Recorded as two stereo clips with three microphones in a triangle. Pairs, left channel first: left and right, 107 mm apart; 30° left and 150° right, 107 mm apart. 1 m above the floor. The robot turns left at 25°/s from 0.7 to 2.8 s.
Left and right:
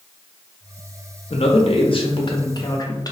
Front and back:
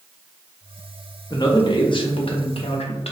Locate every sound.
1.3 s a man speaking: 80° left, 0.5 m; by 3.1 s 40° left, 0.5 m